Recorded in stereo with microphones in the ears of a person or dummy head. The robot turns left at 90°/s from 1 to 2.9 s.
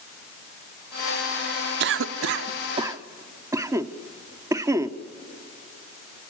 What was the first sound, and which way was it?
A cough, 65° right (ahead or behind).